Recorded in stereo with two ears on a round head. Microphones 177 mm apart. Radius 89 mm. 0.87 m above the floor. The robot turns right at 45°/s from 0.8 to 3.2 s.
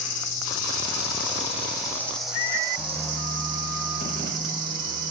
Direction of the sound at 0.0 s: 115° left.